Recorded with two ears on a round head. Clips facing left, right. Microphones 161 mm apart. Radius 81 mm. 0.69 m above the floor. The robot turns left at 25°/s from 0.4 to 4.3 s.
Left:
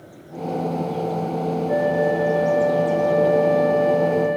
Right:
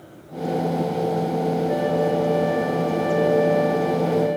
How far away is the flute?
About 3.5 m.